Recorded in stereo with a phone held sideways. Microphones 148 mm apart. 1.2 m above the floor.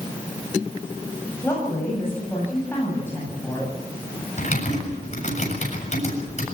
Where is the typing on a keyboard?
50° left (ahead or behind), 7.5 m.